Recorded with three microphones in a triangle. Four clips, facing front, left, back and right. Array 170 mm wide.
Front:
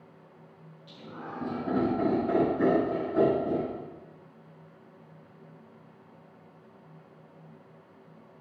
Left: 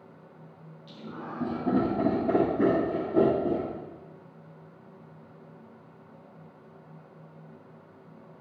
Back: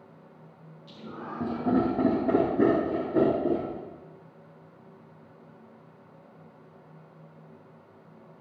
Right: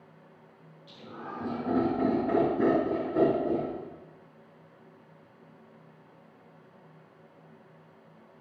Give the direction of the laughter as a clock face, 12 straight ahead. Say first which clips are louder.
Left 2 dB, back 2 dB; 7 o'clock.